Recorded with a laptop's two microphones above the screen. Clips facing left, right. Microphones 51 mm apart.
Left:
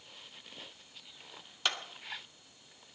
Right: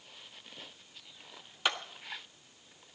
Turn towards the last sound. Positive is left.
turn(degrees=-10)  # may be behind; listen again after turning